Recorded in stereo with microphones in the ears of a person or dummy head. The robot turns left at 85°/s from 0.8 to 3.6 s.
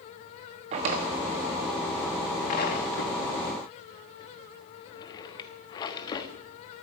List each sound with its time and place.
0.7 s a drawer: 40° right (ahead or behind), 1.4 m; by 6.3 s 25° left (ahead or behind), 1.4 m